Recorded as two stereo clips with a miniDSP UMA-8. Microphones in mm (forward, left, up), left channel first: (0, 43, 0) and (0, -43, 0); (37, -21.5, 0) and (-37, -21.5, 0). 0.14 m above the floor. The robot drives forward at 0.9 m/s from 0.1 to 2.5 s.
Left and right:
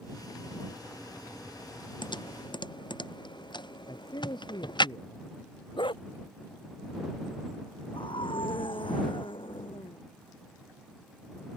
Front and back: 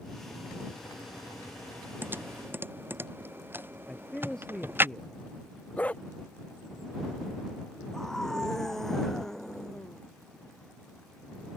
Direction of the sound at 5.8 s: 70° left.